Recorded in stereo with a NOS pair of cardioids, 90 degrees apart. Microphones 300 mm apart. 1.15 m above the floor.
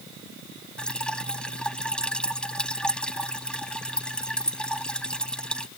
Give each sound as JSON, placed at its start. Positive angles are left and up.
{"t": 0.8, "sound": "dripping", "azimuth_deg": 5}